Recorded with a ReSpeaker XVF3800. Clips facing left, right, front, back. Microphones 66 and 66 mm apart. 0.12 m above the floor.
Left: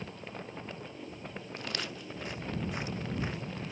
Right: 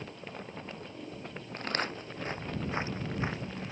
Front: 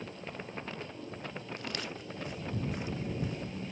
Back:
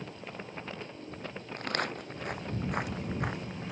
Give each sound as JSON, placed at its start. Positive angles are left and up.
{"t": 1.6, "sound": "footsteps", "azimuth_deg": -140}